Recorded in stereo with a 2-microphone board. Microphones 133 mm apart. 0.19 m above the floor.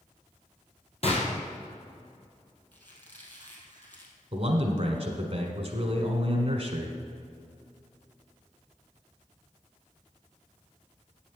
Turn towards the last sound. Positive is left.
turn(degrees=-50)  # may be behind; listen again after turning